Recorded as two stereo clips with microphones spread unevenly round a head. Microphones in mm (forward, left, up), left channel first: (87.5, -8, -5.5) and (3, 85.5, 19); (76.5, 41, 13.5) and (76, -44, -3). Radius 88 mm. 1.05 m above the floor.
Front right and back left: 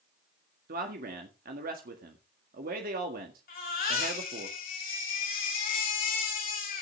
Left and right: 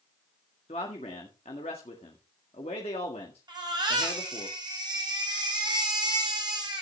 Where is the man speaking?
135° left, 1.8 m.